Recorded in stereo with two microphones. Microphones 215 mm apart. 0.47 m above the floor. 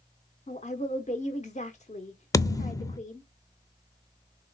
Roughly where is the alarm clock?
I don't hear an alarm clock.